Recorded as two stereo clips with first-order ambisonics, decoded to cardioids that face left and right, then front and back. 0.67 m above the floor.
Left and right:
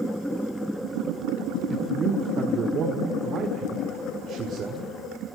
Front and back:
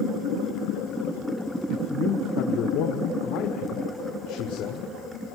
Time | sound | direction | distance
1.7 | a man speaking | 35° right | 2.5 m